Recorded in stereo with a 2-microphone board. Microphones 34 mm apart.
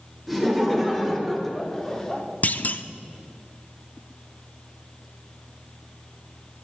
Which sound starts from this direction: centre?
Laughter, at 0.3 s.